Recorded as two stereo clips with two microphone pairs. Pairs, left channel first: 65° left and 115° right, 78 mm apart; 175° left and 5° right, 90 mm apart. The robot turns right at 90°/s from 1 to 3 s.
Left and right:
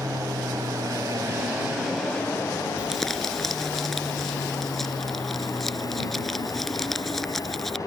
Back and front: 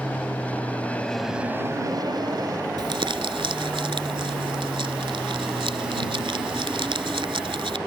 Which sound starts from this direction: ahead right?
Crumpling, at 2.8 s.